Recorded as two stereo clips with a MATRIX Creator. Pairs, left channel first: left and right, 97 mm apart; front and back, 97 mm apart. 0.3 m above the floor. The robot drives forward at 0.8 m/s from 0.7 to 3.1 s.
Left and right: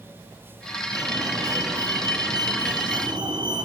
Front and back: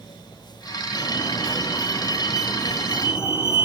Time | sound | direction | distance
0.9 | a fire alarm | 45° right | 5.5 m